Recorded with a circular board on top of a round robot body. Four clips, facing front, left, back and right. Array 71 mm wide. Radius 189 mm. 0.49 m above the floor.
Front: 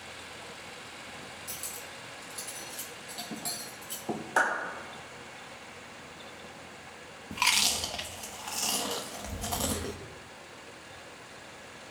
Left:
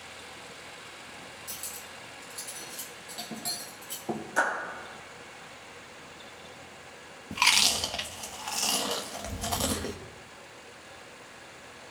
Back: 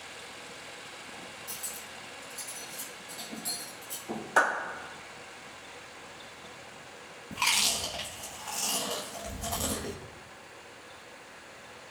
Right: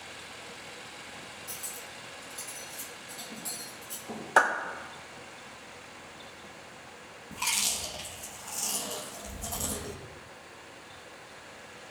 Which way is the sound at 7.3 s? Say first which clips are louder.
Left 8 dB, front 1 dB; 75° left.